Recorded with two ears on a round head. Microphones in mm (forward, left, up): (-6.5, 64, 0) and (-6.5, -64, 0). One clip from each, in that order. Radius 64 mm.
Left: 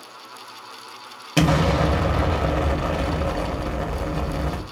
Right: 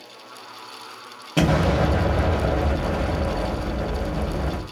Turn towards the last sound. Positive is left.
turn(degrees=45)  # may be behind; listen again after turning